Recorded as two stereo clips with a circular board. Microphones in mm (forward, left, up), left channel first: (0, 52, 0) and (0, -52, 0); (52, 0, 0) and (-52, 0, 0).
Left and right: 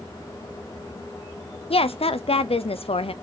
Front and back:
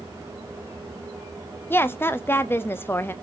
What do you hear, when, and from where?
1.7 s a woman speaking: 70° left, 0.7 m